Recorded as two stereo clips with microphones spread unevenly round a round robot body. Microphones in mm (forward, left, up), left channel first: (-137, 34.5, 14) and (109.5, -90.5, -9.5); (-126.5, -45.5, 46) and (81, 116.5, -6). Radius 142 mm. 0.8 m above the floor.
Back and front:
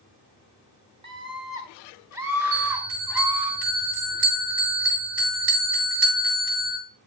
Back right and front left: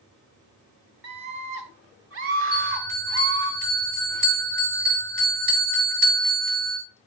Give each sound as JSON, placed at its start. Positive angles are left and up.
{"t": 1.0, "sound": "a scream", "azimuth_deg": 40, "distance_m": 1.6}
{"t": 2.5, "sound": "a bell", "azimuth_deg": -10, "distance_m": 5.5}